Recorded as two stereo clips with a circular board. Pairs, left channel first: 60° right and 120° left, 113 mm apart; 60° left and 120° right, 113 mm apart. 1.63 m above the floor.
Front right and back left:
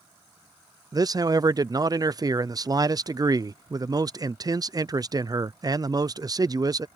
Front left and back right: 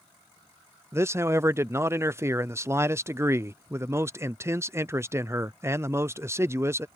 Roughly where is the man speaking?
Behind.